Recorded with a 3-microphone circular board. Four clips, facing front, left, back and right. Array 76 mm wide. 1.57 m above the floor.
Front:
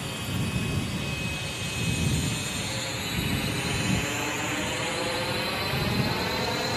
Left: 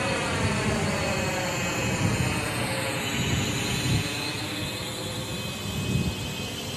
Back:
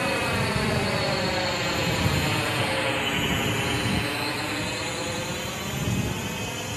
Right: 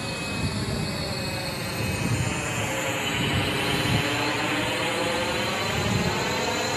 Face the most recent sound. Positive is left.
turn(degrees=-70)